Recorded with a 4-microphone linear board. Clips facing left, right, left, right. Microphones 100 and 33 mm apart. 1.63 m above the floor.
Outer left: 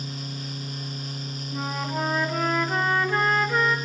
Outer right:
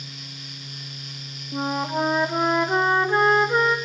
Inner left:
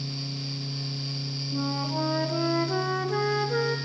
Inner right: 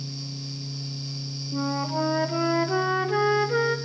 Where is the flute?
25° right (ahead or behind), 1.2 m.